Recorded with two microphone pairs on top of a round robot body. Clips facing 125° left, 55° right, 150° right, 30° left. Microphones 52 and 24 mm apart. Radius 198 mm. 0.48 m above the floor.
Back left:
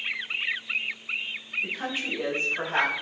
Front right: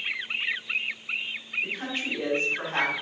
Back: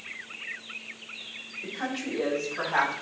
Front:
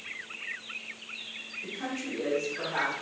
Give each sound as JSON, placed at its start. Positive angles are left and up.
{"t": 1.6, "sound": "a woman speaking", "azimuth_deg": -160, "distance_m": 5.0}